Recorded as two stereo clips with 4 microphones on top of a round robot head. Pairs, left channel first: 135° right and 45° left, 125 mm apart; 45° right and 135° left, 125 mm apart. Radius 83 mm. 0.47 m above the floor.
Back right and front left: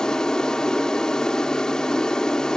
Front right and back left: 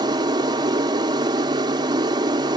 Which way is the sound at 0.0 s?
145° left.